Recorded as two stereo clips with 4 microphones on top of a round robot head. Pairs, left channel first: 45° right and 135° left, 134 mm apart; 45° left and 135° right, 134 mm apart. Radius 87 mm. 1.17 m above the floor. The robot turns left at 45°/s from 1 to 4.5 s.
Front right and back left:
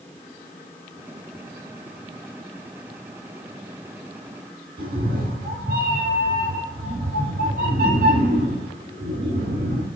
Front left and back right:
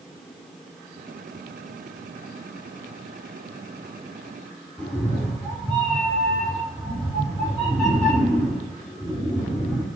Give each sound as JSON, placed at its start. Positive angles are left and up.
{"t": 4.8, "sound": "a cat meowing", "azimuth_deg": 135, "distance_m": 1.2}